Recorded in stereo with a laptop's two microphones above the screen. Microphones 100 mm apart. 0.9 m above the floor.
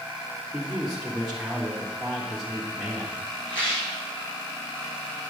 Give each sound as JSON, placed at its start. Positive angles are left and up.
{"t": 0.5, "sound": "a man speaking", "side_deg": -5, "distance_m": 1.6}
{"t": 3.5, "sound": "a rattle", "side_deg": 50, "distance_m": 4.5}